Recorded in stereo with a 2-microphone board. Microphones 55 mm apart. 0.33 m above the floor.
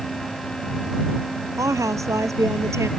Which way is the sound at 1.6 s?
75° right (ahead or behind).